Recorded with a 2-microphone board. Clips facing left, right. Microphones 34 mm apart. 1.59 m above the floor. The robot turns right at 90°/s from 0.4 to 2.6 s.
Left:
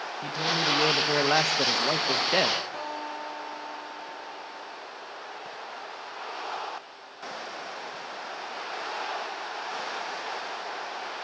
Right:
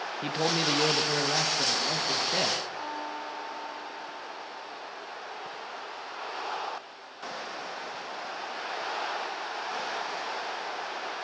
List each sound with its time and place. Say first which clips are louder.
0.2 s a man speaking: left 1 dB; 35° right, 1.5 m; by 2.6 s 160° left, 1.5 m
2.7 s a guitar: left 1 dB; 65° left (ahead or behind), 9 m